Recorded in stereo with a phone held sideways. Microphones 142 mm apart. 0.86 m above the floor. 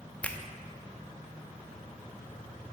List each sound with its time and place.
0.2 s a finger snap: 10° left (ahead or behind), 0.8 m